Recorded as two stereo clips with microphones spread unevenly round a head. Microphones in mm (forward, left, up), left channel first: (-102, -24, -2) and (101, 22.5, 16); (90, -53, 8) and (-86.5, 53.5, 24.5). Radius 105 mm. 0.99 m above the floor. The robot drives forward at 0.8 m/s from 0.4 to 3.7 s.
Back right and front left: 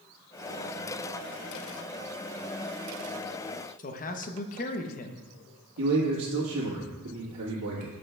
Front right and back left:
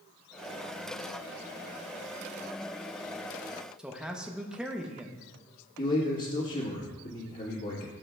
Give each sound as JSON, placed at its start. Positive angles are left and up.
{"t": 3.8, "sound": "a man speaking", "azimuth_deg": -120, "distance_m": 0.7}
{"t": 5.8, "sound": "a man speaking", "azimuth_deg": 25, "distance_m": 1.4}